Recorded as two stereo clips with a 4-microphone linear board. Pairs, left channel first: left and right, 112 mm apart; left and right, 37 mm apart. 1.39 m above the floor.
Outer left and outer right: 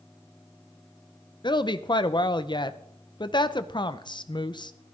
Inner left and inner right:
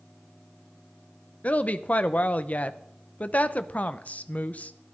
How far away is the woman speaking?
About 0.7 m.